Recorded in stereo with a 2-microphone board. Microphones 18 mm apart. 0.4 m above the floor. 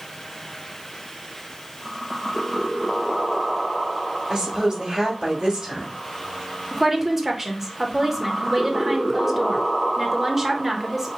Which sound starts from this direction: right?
A woman speaking, at 4.3 s.